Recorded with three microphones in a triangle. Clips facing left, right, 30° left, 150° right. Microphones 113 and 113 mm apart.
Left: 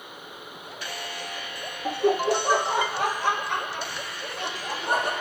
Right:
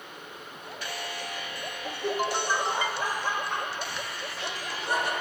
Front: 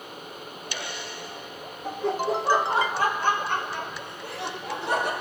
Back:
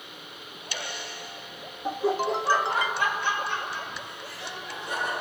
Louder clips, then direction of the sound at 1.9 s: Left 7 dB, back 1 dB; 140° left.